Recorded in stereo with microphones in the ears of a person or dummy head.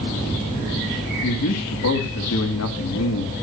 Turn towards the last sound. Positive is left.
turn(degrees=80)